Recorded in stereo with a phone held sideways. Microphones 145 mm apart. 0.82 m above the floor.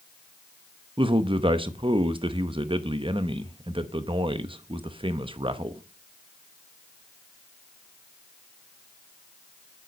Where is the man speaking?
40° right (ahead or behind), 0.8 m.